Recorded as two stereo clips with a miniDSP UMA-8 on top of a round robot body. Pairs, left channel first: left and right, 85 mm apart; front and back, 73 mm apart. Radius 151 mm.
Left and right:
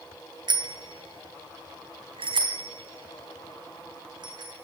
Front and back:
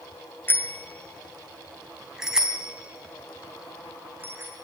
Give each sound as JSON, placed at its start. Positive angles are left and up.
{"t": 0.5, "sound": "a bicycle bell", "azimuth_deg": -60, "distance_m": 2.5}